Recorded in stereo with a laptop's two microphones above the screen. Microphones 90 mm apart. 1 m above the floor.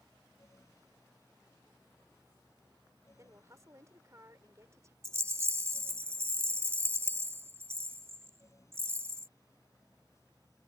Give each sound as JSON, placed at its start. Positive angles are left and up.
{"t": 0.0, "sound": "a fan", "side_deg": 35}
{"t": 3.2, "sound": "a woman speaking", "side_deg": -35}
{"t": 5.0, "sound": "a rattle", "side_deg": -30}